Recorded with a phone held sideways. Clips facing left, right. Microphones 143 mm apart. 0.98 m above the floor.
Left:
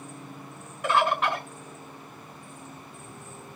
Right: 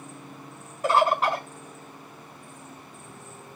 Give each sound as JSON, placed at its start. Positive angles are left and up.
{"t": 0.8, "sound": "a bird", "side_deg": -35, "distance_m": 1.8}